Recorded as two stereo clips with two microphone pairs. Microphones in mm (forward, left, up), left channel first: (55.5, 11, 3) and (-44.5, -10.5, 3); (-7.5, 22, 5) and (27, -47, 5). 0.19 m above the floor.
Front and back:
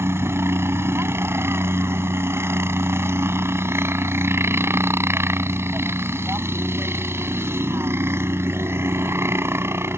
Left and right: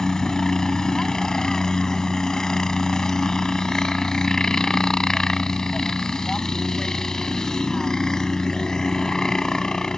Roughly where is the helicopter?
Behind.